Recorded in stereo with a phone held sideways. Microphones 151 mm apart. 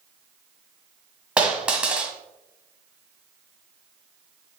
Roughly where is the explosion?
No explosion in this recording.